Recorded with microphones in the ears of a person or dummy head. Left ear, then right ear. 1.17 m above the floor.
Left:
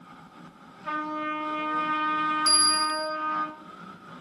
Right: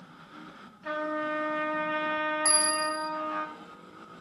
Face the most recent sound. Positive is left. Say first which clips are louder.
# left 7 dB
turn(degrees=-50)  # may be behind; listen again after turning